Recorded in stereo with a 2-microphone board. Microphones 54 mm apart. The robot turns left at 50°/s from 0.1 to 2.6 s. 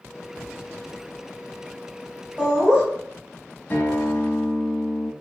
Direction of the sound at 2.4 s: 20° right (ahead or behind).